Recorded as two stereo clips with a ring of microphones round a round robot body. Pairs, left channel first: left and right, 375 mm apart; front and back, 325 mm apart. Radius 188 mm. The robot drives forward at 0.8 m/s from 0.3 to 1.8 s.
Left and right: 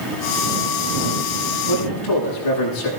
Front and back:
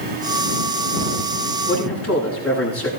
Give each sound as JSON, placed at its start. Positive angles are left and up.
{"t": 1.7, "sound": "a man speaking", "azimuth_deg": 50, "distance_m": 9.0}